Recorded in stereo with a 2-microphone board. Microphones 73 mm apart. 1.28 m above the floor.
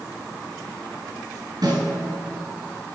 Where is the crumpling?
I don't hear crumpling.